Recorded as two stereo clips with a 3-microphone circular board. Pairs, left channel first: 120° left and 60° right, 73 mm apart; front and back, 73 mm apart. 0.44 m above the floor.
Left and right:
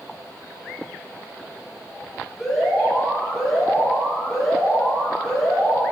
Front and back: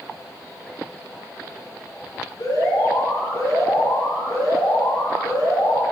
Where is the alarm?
40° left, 5.5 m.